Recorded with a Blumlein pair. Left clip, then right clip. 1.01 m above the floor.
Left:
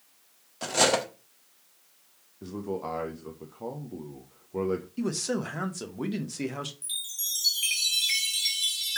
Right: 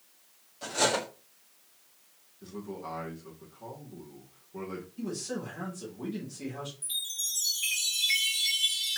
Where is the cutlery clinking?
60° left, 0.9 m.